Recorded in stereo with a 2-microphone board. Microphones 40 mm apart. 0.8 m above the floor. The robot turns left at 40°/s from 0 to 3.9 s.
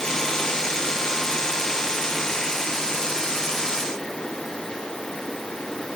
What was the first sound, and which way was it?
Only background noise.